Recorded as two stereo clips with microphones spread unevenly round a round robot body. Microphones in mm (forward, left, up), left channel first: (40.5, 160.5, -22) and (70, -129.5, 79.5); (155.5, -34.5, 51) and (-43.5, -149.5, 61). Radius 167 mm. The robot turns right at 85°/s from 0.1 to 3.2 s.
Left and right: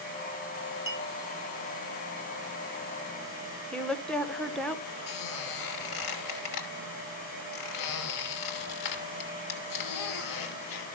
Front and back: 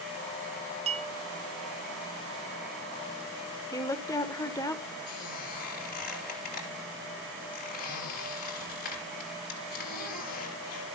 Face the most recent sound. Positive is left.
turn(degrees=90)